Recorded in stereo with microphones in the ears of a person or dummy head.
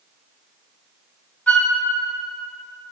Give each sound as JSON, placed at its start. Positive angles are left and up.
{"t": 1.5, "sound": "a flute", "side_deg": 5, "distance_m": 0.5}